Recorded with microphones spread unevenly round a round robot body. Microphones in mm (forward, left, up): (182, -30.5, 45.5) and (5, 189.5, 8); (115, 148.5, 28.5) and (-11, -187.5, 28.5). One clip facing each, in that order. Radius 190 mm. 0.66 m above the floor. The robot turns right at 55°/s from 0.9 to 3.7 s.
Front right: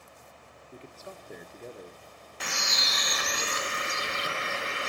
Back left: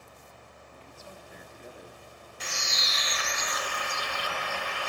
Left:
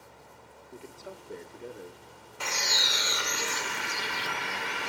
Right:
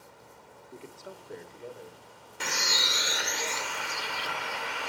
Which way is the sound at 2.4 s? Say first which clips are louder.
Front right 3 dB, right 1 dB; 55° right.